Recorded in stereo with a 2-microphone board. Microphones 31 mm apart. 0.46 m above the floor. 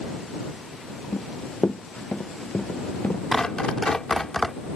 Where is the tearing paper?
15° left (ahead or behind).